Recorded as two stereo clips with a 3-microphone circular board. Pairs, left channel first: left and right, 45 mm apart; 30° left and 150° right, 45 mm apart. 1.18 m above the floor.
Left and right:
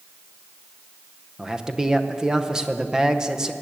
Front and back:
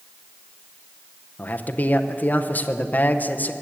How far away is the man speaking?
About 0.7 m.